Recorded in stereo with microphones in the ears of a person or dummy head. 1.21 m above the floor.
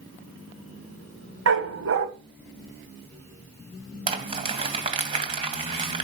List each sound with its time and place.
1.5 s a dog barking: 70° right (ahead or behind), 2.5 m
4.1 s crumpling: 30° right (ahead or behind), 2.5 m